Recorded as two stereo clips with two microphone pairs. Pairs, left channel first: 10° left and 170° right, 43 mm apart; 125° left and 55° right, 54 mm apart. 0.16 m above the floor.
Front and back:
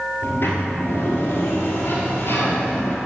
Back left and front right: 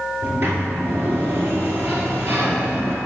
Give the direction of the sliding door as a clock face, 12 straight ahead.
12 o'clock.